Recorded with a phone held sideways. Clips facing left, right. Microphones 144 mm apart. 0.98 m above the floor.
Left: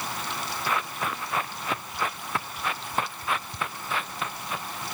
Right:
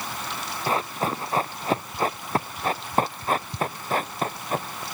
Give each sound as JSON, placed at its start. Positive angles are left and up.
{"t": 0.7, "sound": "running footsteps", "side_deg": -35}